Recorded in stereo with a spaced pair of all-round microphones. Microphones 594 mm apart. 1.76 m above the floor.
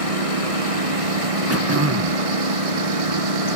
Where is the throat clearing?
25° right (ahead or behind).